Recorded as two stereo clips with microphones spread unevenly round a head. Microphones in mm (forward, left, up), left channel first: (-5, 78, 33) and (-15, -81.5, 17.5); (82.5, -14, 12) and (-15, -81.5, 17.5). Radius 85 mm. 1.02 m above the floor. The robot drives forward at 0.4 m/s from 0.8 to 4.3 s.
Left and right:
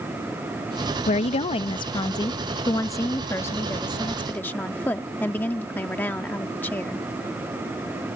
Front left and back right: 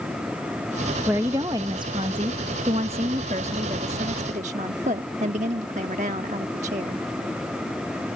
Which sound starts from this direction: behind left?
A woman speaking, at 1.1 s.